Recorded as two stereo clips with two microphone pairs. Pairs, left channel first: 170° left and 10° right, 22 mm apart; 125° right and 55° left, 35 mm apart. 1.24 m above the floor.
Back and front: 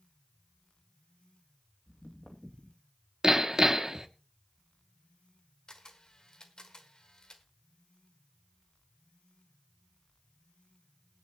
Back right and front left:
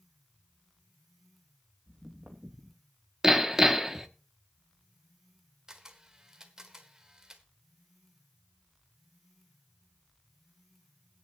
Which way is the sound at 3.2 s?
15° right.